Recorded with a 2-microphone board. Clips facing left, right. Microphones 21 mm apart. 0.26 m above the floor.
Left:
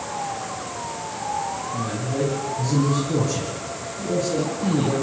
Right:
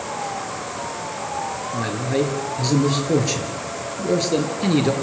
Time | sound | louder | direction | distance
1.7 | a man speaking | right 6 dB | 60° right (ahead or behind) | 5.5 m